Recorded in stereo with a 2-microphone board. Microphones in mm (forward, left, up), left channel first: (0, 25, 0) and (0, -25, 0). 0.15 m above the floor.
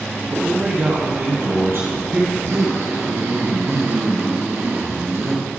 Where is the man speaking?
60° right (ahead or behind), 4 m.